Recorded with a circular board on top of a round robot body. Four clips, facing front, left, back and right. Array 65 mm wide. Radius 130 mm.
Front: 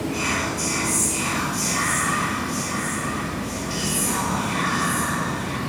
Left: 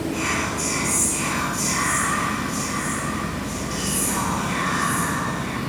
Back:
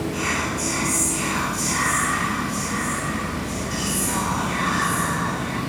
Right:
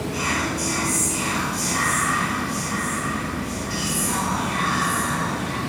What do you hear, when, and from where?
0.1 s whispering: 35° right, 1.7 m